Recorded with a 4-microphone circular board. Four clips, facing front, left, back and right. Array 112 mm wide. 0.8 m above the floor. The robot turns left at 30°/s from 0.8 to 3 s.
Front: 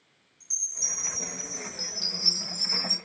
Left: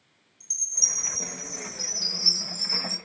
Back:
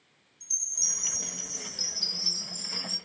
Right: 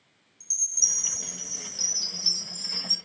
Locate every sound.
0.4 s a chime: 20° left, 1.9 m; by 3.0 s 45° right, 1.9 m